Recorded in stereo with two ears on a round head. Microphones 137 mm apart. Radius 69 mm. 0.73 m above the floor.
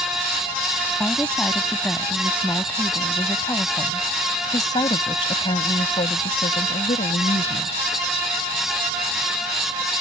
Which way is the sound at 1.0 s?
5° left (ahead or behind).